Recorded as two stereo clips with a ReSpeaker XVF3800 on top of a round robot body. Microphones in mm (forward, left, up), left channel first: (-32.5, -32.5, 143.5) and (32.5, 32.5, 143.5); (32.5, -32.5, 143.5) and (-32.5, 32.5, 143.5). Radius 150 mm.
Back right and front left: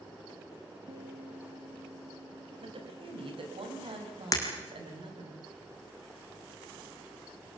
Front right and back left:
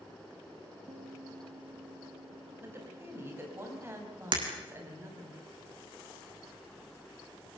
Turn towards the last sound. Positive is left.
turn(degrees=170)